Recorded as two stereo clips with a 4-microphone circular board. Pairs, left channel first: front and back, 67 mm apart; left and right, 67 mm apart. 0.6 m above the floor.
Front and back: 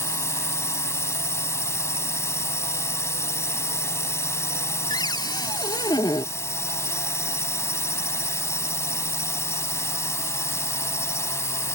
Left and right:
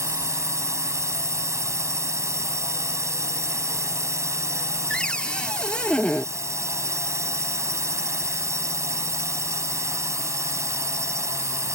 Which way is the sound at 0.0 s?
45° right.